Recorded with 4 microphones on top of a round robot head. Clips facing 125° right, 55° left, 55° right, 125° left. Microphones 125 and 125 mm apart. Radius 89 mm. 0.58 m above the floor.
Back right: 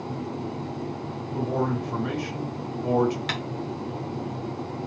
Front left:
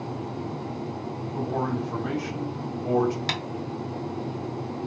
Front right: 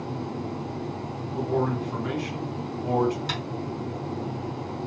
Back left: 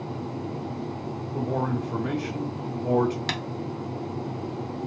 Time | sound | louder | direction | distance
1.3 | a man speaking | back right 2 dB, front right 2 dB | 165° left | 2 m
3.3 | tapping | even, back left 1 dB | 110° left | 0.9 m